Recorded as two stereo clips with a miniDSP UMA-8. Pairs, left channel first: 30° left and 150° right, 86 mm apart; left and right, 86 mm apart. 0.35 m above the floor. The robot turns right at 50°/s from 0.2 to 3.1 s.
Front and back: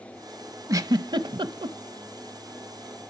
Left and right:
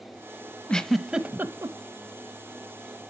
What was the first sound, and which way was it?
A giggle, 170° left.